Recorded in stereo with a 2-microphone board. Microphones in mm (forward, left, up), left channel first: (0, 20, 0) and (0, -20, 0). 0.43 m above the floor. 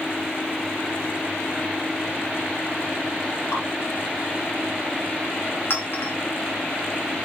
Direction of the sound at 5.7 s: 65° left (ahead or behind).